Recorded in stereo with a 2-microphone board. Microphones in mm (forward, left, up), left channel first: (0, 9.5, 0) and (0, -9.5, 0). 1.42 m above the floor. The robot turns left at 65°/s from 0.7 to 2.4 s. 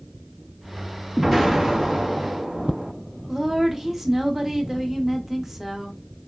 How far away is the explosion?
About 0.9 m.